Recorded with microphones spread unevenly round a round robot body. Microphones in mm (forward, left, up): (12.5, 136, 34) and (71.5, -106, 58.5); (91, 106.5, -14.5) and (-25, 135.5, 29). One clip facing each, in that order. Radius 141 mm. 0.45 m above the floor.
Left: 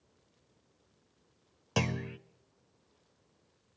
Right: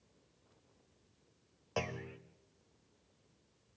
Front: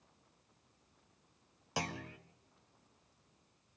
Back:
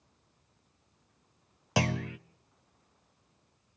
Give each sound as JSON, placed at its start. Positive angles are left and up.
{"t": 1.8, "sound": "a clunk", "azimuth_deg": 150, "distance_m": 0.5}